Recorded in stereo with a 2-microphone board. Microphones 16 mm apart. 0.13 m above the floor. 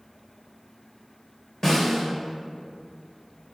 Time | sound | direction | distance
1.6 | a snare drum | 30° left (ahead or behind) | 2.5 m